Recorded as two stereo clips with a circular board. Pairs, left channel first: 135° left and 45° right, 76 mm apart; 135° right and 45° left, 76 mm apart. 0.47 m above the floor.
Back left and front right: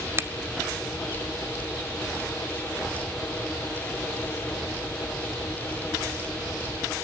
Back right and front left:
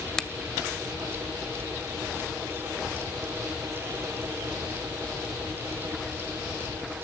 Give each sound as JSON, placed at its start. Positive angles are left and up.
{"t": 0.2, "sound": "a finger snap", "azimuth_deg": -60, "distance_m": 0.7}